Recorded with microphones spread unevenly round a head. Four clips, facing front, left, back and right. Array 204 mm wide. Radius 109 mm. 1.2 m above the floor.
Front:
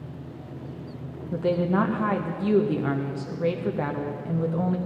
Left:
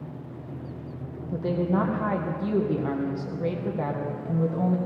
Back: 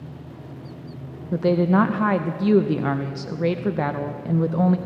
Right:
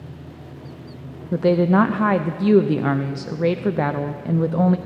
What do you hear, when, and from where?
1.3 s a woman speaking: 120° right, 0.7 m